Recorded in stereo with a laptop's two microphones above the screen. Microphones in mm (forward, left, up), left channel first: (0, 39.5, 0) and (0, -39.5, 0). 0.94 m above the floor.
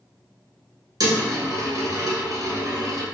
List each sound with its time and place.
1.0 s a dropped coin: 55° right (ahead or behind), 1.3 m